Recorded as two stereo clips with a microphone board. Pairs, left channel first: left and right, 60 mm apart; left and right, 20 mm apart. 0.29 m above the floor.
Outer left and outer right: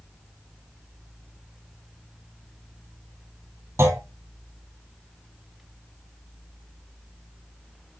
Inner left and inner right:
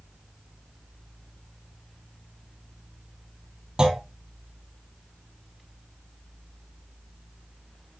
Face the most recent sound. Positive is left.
turn(degrees=-45)  # may be behind; listen again after turning